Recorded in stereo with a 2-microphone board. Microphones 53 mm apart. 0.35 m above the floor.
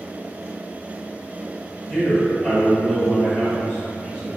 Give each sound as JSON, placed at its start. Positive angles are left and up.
{"t": 1.9, "sound": "a man speaking", "side_deg": -20, "distance_m": 1.5}